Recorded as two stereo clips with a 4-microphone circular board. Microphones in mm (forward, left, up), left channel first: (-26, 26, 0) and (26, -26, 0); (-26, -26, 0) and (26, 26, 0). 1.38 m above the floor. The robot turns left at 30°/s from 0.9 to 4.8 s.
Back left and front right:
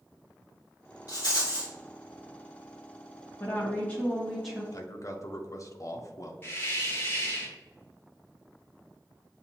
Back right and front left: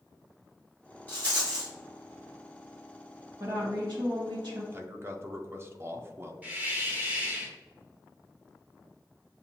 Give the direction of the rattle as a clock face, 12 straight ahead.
7 o'clock.